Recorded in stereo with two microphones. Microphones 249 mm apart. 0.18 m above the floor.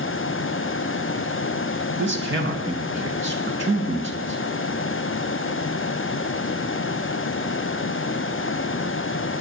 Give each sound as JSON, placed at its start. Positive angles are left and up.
{"t": 2.0, "sound": "a man speaking", "side_deg": -50, "distance_m": 2.0}